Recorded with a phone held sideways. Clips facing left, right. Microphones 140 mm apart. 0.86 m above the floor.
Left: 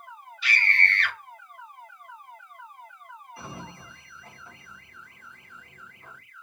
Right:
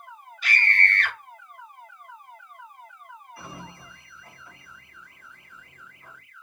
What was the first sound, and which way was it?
A scream, 45° right (ahead or behind).